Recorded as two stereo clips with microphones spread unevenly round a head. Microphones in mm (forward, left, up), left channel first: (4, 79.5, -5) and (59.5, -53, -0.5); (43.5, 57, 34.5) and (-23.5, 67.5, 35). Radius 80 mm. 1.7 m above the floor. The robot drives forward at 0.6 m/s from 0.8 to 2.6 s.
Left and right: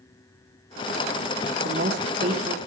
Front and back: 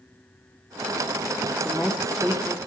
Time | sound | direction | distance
1.6 | a woman speaking | 90° right | 1.9 m